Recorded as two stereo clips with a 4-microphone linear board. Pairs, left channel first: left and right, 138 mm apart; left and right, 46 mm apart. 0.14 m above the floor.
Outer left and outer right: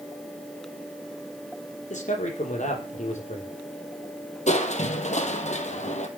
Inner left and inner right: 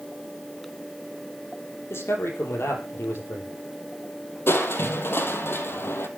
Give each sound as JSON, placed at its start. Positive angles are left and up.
{"t": 1.9, "sound": "a man speaking", "side_deg": 60, "distance_m": 4.5}
{"t": 4.5, "sound": "crushing", "side_deg": 55, "distance_m": 2.0}